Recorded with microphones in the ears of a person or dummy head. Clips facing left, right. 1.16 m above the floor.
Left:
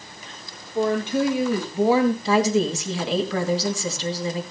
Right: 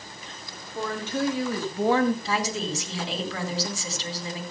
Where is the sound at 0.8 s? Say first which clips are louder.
Left 7 dB; 25° left (ahead or behind), 2 m; by 2.1 s 10° left (ahead or behind), 0.7 m.